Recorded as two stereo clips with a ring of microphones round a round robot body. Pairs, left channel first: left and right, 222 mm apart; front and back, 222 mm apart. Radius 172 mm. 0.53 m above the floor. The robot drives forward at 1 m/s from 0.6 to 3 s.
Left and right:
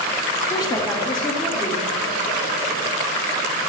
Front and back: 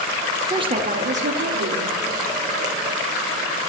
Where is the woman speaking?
135° left, 0.8 m; by 1.9 s 170° left, 1.8 m.